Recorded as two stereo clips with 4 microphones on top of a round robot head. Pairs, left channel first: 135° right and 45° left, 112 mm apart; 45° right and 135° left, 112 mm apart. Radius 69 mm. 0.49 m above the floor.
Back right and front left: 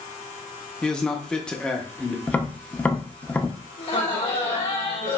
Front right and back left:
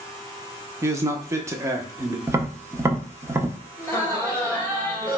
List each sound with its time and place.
0.8 s a man speaking: 155° left, 0.8 m
2.3 s tapping: 165° left, 0.7 m
3.8 s laughter: 115° right, 3 m